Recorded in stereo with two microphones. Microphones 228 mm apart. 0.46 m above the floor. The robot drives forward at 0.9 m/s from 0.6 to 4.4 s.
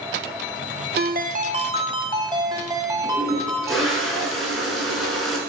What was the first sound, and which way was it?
A ringtone, 45° right (ahead or behind).